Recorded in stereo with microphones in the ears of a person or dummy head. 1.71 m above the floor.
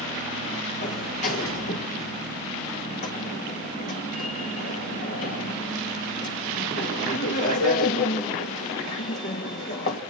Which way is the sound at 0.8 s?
60° left (ahead or behind).